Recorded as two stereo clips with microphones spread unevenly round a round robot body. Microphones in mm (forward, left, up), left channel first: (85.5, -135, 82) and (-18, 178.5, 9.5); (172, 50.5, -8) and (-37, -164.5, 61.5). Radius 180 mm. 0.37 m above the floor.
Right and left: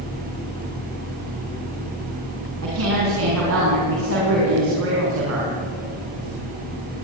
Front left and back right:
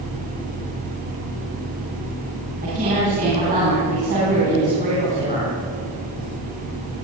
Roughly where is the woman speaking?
Behind left.